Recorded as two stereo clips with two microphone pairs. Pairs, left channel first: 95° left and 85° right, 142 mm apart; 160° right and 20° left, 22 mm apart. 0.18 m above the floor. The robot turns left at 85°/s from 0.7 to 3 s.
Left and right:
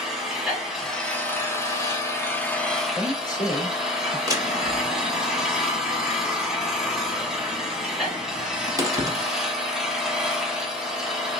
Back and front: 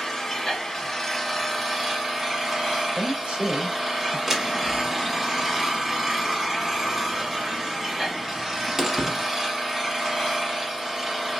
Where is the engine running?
170° right, 1.2 m; by 11.4 s 5° right, 1.2 m.